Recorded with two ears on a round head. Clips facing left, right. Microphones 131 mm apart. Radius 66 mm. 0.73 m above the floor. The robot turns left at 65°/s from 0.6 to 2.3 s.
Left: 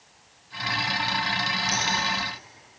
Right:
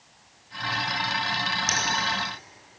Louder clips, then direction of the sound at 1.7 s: Even; 60° right (ahead or behind).